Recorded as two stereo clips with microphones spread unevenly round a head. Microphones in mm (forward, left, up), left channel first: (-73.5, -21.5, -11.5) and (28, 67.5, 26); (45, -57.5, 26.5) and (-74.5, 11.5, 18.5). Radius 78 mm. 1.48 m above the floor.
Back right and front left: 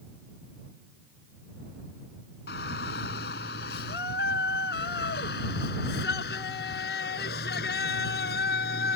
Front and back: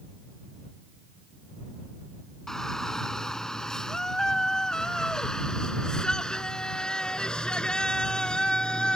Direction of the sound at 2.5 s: 115° right.